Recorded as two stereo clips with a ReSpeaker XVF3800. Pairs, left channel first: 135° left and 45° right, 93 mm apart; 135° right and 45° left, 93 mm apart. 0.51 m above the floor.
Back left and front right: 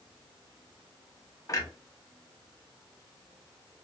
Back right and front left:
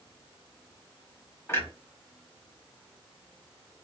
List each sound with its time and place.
1.5 s a clunk: 175° left, 1.0 m